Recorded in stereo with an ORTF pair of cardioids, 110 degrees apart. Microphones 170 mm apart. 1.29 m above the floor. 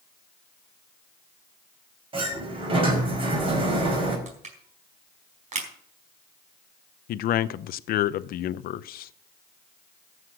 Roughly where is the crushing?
Ahead right.